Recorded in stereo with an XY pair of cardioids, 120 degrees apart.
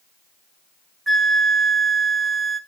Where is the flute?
10° right, 0.7 m.